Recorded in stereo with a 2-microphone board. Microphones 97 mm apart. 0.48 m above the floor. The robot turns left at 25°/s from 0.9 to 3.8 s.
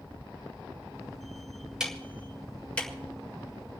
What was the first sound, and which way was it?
Ticking, 10° right (ahead or behind).